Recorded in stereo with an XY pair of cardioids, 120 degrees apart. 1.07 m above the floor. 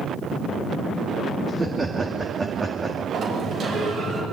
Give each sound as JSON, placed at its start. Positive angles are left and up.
{"t": 1.5, "sound": "laughter", "azimuth_deg": -25, "distance_m": 2.0}
{"t": 3.1, "sound": "a sliding door", "azimuth_deg": -45, "distance_m": 6.5}